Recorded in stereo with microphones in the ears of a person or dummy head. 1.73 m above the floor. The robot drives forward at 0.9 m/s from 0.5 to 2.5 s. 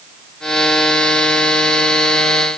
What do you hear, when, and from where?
Only background noise.